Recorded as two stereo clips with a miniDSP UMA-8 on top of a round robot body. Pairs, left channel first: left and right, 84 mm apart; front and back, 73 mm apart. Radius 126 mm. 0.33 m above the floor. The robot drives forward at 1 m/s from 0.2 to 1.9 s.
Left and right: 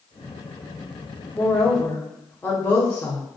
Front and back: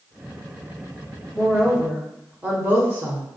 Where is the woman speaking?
85° left, 1.2 m; by 3.2 s 145° left, 1.3 m.